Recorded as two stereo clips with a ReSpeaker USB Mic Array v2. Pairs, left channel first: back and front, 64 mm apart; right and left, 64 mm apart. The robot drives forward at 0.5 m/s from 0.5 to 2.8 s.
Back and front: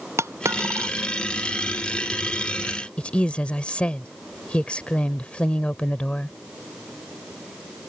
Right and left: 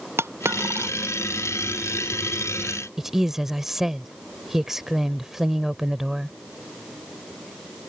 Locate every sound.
0.2 s a dropped coin: 40° left; by 0.9 s 45° left
3.0 s a woman speaking: 160° left